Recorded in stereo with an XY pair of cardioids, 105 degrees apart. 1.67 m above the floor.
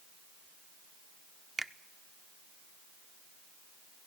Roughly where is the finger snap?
Ahead.